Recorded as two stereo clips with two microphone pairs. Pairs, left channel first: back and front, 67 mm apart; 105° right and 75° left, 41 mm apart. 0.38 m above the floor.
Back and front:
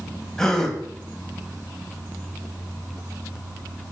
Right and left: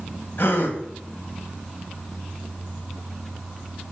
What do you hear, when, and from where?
0.4 s a gasp: 100° right, 2.5 m